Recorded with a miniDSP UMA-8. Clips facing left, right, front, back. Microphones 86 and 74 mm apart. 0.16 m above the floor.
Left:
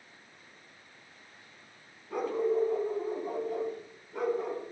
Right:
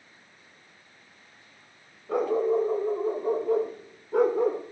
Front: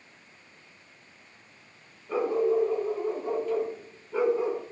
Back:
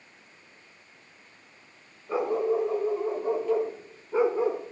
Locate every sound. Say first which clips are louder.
2.1 s a dog barking: right 5 dB, front 1 dB; 105° right, 8.5 m